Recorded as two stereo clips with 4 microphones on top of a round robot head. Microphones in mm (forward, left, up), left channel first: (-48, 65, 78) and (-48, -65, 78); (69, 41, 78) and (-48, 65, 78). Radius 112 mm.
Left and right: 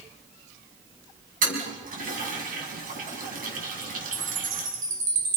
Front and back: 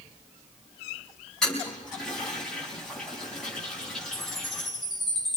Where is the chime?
100° right, 3 m.